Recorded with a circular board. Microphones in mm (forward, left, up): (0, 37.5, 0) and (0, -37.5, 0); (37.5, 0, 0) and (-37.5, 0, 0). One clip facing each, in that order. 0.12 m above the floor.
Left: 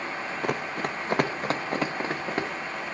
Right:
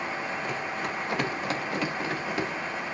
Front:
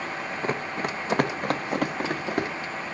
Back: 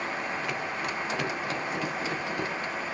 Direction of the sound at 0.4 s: 60° left.